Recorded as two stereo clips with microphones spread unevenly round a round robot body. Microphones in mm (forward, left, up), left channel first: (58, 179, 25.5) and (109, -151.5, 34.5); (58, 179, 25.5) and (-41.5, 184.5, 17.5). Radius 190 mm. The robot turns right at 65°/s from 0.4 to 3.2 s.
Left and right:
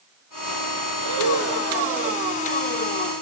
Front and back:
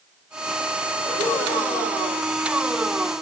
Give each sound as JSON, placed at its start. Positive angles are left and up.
{"t": 1.0, "sound": "breathing", "azimuth_deg": -120, "distance_m": 8.5}